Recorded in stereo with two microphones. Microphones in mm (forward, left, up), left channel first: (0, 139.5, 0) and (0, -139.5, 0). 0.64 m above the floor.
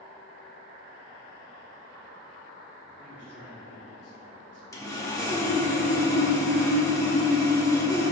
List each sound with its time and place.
3.0 s a man speaking: 55° left (ahead or behind), 1.8 m
4.7 s sawing: 10° left (ahead or behind), 1.2 m